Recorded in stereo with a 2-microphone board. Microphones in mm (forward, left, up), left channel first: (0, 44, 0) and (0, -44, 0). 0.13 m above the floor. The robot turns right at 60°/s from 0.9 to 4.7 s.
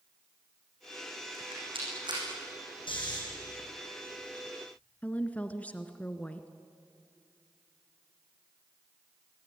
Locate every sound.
1.3 s a rattle: 75° right (ahead or behind), 9 m; by 2.2 s 50° right (ahead or behind), 9 m
2.9 s snoring: 65° left (ahead or behind), 7 m; by 3.2 s 50° left (ahead or behind), 7 m
5.0 s a woman speaking: 15° left (ahead or behind), 1.3 m